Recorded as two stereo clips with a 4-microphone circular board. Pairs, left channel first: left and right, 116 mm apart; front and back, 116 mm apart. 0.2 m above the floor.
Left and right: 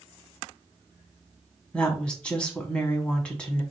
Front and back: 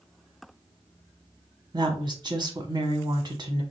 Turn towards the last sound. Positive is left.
turn(degrees=165)